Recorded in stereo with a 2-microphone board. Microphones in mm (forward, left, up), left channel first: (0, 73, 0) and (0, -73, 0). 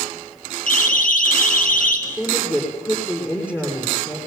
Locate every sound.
0.7 s a siren: 65° left (ahead or behind), 5 m
2.1 s a woman speaking: 15° left (ahead or behind), 7.5 m